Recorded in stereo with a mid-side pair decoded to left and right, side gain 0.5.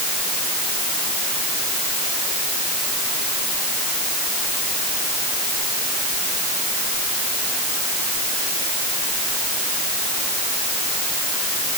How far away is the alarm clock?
No alarm clock in this recording.